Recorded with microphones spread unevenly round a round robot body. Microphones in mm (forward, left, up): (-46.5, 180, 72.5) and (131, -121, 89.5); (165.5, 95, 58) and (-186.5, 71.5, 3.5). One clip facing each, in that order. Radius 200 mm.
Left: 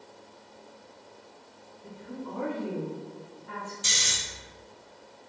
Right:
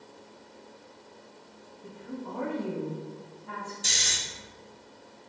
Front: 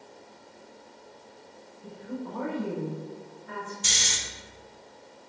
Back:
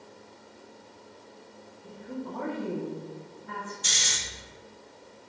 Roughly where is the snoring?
Ahead left.